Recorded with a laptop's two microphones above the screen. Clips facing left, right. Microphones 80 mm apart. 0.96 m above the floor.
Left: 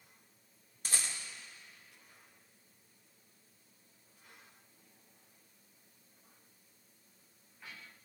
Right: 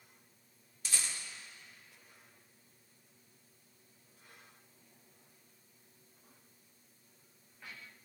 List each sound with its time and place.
0.8 s a rattle: 45° left (ahead or behind), 0.8 m